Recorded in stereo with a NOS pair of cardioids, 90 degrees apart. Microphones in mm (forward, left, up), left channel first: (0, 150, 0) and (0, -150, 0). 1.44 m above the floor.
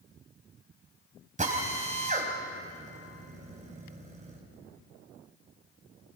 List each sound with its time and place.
1.4 s a drill: 25° right, 5 m